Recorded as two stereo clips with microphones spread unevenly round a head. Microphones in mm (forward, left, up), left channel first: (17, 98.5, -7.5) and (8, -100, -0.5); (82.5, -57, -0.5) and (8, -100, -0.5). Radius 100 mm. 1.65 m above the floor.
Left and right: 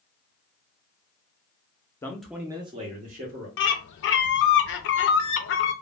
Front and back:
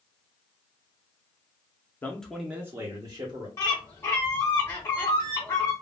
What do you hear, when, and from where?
2.0 s a man speaking: 25° left, 0.5 m; by 3.5 s 130° right, 0.9 m
3.6 s a bird: 95° left, 0.5 m